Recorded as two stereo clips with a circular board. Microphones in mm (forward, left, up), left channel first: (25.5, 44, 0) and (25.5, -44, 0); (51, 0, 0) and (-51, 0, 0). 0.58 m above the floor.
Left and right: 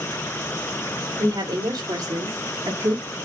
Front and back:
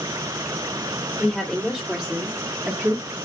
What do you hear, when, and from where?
1.2 s a woman speaking: 90° right, 1.8 m; by 3.2 s 135° right, 1.4 m